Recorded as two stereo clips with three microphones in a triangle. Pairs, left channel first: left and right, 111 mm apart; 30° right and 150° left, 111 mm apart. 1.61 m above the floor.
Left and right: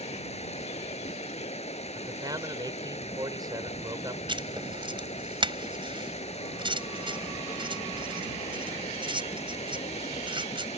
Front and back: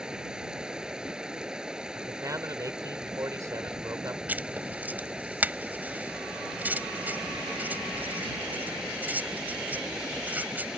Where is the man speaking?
145° right.